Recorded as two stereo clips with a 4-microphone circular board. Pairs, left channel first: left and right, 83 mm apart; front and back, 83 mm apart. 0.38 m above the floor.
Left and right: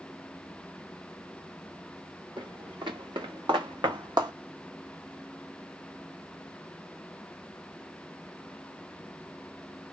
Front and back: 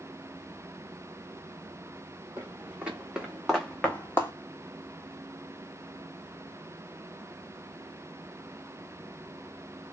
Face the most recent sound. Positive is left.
turn(degrees=-60)